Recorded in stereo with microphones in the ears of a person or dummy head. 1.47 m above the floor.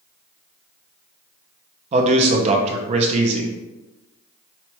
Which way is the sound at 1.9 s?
40° right (ahead or behind).